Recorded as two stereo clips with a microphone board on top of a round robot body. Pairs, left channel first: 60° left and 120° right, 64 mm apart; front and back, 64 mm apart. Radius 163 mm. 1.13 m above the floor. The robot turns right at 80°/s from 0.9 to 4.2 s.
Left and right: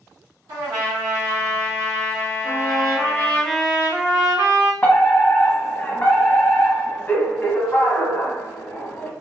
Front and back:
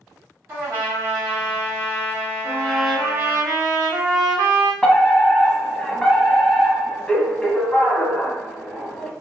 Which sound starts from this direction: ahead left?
A trumpet, at 2.4 s.